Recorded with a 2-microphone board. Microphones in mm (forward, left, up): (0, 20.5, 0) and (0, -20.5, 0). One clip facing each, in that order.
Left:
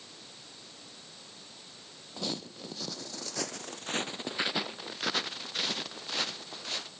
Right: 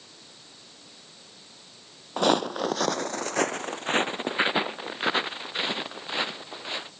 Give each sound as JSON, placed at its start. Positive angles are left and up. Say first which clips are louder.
{"t": 2.2, "sound": "footsteps", "louder": "right 15 dB", "side_deg": -60}